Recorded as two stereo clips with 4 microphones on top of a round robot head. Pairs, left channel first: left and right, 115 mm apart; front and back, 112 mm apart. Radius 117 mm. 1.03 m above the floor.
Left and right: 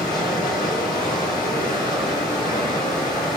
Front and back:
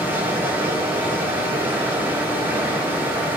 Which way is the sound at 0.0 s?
110° left.